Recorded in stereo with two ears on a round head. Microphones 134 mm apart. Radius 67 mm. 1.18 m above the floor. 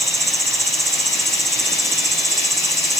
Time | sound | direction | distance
0.0 | an insect | centre (ahead or behind) | ?